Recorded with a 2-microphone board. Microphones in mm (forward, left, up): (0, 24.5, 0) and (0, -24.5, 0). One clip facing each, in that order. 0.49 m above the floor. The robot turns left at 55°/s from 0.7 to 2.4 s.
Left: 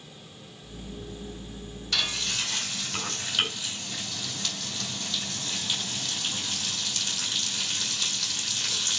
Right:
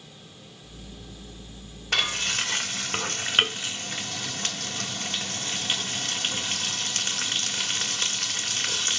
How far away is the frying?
About 2 m.